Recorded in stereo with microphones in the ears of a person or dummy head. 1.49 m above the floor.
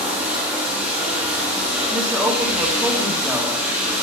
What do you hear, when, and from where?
0.0 s running water: 5° right (ahead or behind), 2 m
1.9 s a woman speaking: 5° right (ahead or behind), 2 m